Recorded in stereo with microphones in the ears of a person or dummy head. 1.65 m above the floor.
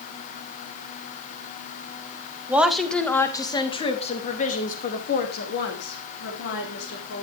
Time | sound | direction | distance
2.5 | a woman speaking | 10° right (ahead or behind) | 1.8 m